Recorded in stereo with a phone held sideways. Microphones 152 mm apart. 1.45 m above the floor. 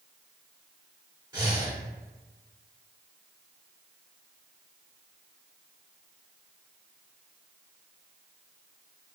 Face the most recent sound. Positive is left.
turn(degrees=-30)  # may be behind; listen again after turning